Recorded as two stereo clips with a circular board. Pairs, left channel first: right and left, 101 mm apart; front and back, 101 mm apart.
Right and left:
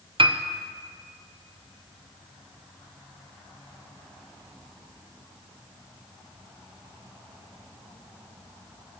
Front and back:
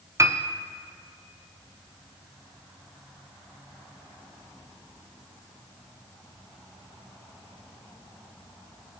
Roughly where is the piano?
Behind left.